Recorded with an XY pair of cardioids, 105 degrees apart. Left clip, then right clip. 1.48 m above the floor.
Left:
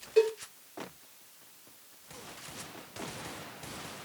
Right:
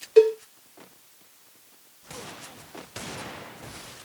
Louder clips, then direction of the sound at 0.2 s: Right 9 dB; 45° right.